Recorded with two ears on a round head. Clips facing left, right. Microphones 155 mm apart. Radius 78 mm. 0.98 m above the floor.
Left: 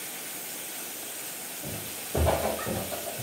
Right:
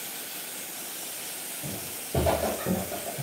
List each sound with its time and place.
1.6 s footsteps: 15° right (ahead or behind), 1.3 m; by 3.2 s 40° right (ahead or behind), 1.3 m